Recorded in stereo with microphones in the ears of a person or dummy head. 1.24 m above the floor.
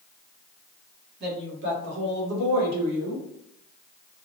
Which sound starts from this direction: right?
A woman speaking, at 1.2 s.